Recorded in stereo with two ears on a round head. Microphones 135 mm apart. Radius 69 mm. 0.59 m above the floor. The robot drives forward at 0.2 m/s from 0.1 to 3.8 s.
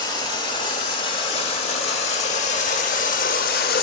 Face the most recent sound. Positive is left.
turn(degrees=65)  # may be behind; listen again after turning